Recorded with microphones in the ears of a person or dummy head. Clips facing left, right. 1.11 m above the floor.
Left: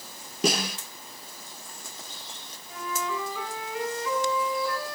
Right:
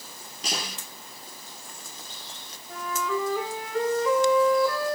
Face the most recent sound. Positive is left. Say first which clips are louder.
# right 3 dB
turn(degrees=-40)  # may be behind; listen again after turning